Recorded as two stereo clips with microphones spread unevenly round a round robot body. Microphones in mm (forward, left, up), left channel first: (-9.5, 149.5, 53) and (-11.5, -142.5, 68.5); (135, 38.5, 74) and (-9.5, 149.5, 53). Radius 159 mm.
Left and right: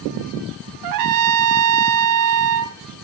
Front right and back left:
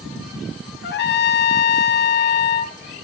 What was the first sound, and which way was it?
A trumpet, 75° right.